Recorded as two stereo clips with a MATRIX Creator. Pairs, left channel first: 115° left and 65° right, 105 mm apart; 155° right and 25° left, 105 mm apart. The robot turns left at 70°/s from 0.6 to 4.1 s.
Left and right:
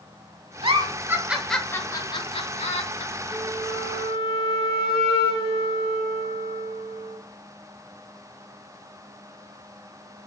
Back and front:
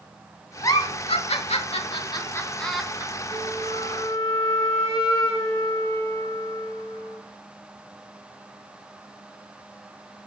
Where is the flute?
155° right, 3 m; by 7.2 s 150° left, 3 m.